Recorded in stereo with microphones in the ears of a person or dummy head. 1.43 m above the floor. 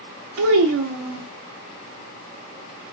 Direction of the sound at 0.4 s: 70° right (ahead or behind).